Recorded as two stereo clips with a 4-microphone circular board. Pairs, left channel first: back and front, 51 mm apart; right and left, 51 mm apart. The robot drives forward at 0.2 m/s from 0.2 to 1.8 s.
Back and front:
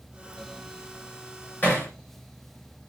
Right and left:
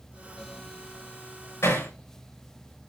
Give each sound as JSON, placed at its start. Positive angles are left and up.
{"t": 1.6, "sound": "hammering", "azimuth_deg": -125, "distance_m": 7.0}